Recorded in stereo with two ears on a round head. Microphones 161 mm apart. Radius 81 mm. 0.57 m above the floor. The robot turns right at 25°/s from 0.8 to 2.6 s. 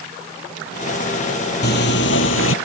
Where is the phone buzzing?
55° left (ahead or behind); by 2.5 s 80° left.